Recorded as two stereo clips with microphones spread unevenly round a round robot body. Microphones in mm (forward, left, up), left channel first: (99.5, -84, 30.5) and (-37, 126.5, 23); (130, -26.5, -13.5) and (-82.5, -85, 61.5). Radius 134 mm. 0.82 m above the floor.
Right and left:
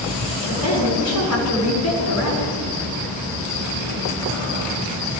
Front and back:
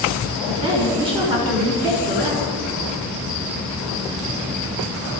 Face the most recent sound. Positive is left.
turn(degrees=-95)